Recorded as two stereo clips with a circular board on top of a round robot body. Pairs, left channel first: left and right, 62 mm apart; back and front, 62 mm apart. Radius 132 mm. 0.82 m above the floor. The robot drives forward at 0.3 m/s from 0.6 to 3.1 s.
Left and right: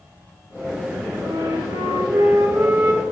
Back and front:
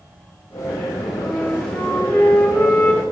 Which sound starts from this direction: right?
A flute, at 1.2 s.